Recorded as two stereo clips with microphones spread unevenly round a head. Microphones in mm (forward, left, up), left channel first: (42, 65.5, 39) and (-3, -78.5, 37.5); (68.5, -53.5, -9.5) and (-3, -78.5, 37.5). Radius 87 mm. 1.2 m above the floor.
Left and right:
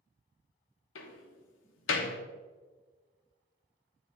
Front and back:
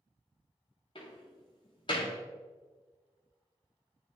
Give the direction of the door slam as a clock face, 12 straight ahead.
9 o'clock.